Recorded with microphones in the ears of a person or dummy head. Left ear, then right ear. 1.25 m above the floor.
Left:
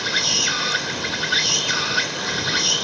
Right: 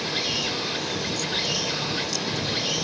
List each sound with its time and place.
0.0 s an insect: 55° left (ahead or behind)